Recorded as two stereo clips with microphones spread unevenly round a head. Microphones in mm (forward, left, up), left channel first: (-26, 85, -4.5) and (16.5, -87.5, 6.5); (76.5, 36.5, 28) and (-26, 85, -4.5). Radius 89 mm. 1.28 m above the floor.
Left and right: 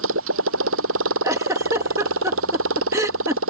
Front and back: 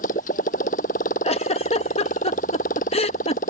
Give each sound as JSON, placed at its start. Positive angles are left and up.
{"t": 0.0, "sound": "a motorcycle", "azimuth_deg": -60}
{"t": 1.2, "sound": "a giggle", "azimuth_deg": 0}